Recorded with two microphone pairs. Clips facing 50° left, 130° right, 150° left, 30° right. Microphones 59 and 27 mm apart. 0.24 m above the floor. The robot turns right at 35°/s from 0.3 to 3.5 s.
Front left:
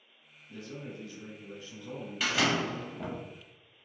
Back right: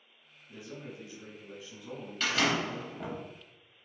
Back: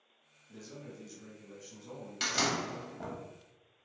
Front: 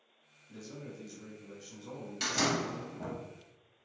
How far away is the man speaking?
About 1.1 m.